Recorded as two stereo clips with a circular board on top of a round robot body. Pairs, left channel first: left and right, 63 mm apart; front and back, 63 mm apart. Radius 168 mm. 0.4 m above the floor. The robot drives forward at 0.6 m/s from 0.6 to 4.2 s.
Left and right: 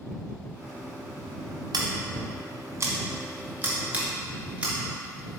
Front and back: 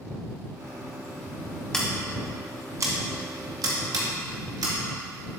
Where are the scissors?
80° right, 0.5 m; by 4.8 s 160° right, 1.5 m.